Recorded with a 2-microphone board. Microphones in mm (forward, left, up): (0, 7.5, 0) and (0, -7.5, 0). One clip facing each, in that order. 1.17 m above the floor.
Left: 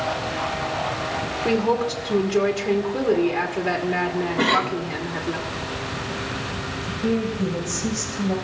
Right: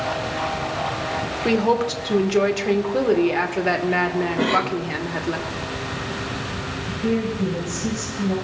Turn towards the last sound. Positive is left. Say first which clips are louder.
# right 1 dB
turn(degrees=30)  # may be behind; listen again after turning